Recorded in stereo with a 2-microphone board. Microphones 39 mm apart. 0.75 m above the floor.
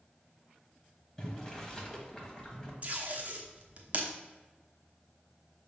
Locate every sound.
1.2 s boiling: 15° left (ahead or behind), 1.3 m
2.8 s tape being pulled: 40° right (ahead or behind), 1.0 m